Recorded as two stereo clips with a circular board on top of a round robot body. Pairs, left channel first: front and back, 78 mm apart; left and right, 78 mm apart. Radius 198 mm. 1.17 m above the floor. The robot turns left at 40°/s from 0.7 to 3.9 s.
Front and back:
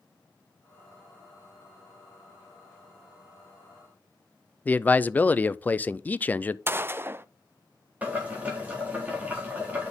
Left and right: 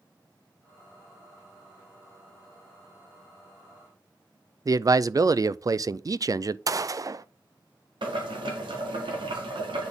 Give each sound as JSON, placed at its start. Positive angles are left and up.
{"t": 4.7, "sound": "a man speaking", "azimuth_deg": -65, "distance_m": 0.5}
{"t": 6.7, "sound": "a gunshot", "azimuth_deg": -125, "distance_m": 0.5}
{"t": 8.0, "sound": "boiling", "azimuth_deg": -110, "distance_m": 1.9}